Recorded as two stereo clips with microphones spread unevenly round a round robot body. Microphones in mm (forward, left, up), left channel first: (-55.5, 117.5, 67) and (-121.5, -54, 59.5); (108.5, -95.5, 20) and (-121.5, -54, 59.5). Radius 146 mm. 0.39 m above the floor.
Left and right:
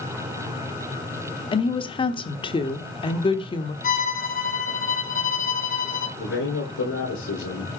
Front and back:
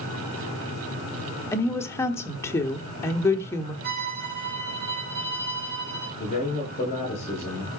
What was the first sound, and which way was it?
A woman speaking, 35° left.